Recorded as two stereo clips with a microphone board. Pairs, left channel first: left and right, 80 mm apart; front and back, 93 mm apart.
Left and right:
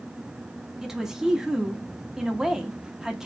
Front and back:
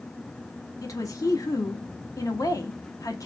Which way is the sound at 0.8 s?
10° right.